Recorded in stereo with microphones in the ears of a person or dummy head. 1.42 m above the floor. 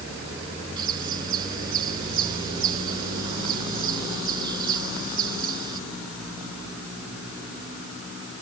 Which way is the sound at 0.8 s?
25° right (ahead or behind).